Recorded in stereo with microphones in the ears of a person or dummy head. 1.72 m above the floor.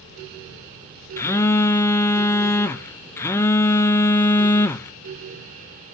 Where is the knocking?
I don't hear knocking.